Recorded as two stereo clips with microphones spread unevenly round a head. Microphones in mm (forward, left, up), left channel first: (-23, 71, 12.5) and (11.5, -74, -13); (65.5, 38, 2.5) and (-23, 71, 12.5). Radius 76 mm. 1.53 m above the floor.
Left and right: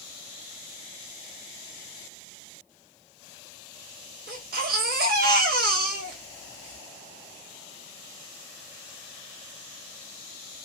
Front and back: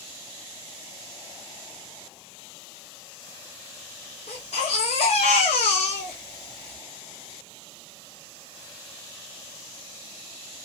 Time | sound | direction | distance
4.3 | a baby crying | 50° right | 1.2 m